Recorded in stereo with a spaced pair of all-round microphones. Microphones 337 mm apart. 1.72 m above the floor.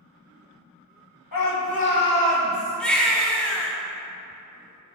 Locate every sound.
1.3 s a shout: 80° left, 1.0 m; by 2.8 s 15° right (ahead or behind), 1.5 m
2.8 s a baby crying: 5° left (ahead or behind), 0.5 m